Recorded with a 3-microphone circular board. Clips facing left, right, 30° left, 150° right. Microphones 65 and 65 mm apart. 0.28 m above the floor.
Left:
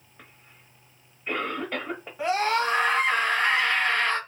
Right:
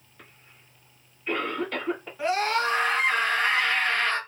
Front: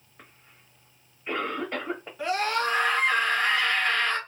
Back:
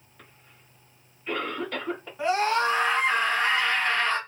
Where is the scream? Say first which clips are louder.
Left 1 dB, back 3 dB; 150° left, 1.7 m.